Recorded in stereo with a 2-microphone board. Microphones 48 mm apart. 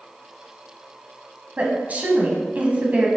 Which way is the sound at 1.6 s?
35° right (ahead or behind).